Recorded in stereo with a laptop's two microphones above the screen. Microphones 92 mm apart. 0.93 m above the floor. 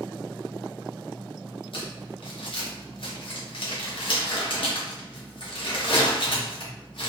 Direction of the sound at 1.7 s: 65° left (ahead or behind).